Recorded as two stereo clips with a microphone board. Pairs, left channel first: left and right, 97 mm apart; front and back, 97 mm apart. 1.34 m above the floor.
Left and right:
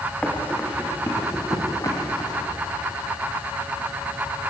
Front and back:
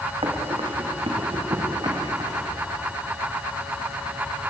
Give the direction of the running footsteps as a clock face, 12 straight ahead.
6 o'clock.